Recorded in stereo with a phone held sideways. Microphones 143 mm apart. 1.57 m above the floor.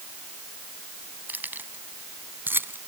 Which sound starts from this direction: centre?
Keys jangling, at 1.3 s.